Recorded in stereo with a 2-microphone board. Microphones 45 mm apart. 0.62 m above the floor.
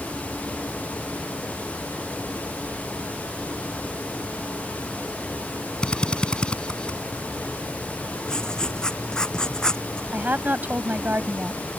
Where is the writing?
15° left (ahead or behind).